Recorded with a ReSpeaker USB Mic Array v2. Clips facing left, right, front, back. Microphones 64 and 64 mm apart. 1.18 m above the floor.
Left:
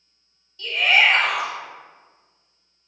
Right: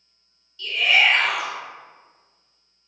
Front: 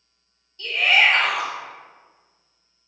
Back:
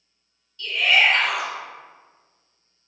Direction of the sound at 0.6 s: 50° left.